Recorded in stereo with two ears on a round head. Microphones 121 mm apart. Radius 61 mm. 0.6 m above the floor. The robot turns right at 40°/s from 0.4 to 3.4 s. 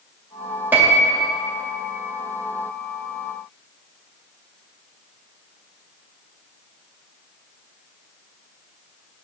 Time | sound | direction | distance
0.7 | a piano | 15° right (ahead or behind) | 0.7 m